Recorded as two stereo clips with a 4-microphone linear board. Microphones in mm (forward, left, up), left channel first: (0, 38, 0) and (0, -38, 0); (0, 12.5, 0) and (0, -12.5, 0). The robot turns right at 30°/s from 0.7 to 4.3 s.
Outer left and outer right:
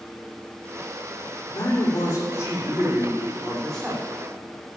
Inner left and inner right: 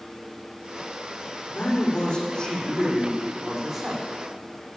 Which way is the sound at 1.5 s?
115° left.